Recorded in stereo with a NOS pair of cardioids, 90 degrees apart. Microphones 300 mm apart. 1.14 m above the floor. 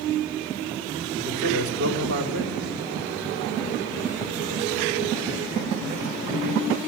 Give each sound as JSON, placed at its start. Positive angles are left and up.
{"t": 1.2, "sound": "a man speaking", "azimuth_deg": -50, "distance_m": 3.5}